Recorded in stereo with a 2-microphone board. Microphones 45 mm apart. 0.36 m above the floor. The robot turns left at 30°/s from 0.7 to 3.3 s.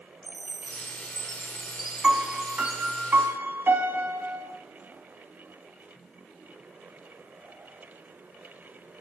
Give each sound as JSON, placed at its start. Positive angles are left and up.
{"t": 0.2, "sound": "a chime", "azimuth_deg": 30, "distance_m": 7.5}
{"t": 2.0, "sound": "a piano", "azimuth_deg": -10, "distance_m": 2.5}